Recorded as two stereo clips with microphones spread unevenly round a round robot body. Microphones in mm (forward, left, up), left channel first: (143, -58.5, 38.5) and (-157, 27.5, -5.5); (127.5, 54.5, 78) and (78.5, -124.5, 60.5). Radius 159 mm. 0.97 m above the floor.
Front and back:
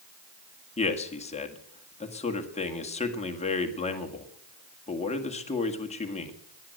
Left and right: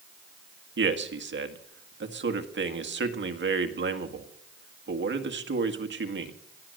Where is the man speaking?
90° right, 1.9 m.